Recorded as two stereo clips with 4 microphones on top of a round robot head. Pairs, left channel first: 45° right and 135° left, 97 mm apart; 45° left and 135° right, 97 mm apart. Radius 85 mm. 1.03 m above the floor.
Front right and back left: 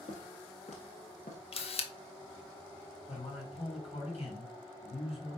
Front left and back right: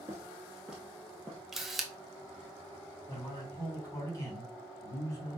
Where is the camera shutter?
50° right, 1.0 m.